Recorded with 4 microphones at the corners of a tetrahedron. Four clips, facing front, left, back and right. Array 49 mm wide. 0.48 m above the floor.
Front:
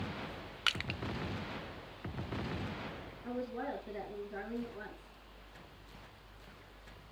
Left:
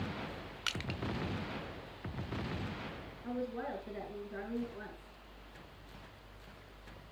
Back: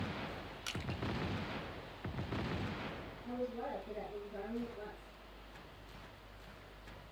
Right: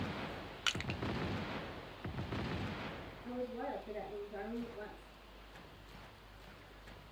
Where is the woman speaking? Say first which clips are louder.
Left 2 dB, front 2 dB; 45° left, 7 m.